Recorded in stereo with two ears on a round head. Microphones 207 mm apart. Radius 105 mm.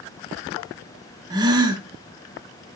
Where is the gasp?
20° right (ahead or behind), 0.6 m.